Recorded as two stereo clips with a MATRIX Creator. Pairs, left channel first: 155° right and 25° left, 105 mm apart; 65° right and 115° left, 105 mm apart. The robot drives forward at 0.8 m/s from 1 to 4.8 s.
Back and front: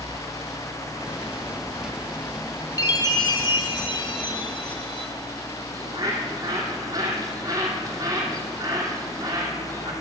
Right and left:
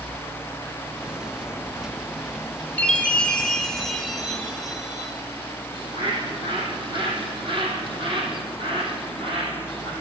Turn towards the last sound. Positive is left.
turn(degrees=80)